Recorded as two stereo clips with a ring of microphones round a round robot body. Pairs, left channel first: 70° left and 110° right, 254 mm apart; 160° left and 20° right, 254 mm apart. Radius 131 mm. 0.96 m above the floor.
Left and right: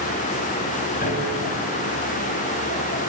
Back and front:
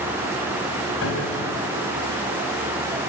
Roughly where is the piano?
Behind left.